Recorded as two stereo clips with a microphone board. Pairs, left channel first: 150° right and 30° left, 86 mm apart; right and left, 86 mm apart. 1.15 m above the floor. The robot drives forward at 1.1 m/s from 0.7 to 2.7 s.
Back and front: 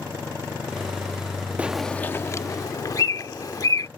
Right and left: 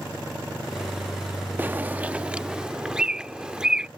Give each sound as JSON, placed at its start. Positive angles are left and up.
{"t": 1.6, "sound": "a bird", "azimuth_deg": 70}